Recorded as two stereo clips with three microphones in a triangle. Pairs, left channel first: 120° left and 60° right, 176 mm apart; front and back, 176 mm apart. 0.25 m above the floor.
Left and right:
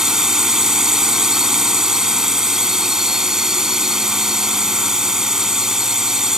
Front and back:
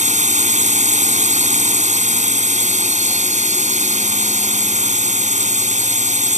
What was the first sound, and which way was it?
A drone, 145° right.